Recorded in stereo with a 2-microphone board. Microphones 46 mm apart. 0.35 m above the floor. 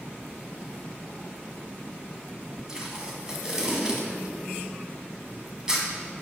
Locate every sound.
2.7 s tape being pulled: 20° right (ahead or behind), 1.8 m